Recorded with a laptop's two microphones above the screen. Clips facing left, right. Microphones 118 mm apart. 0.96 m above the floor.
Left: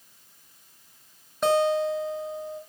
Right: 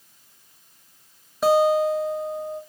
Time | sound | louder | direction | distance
1.4 | a guitar | right 4 dB | 5° right (ahead or behind) | 1.9 m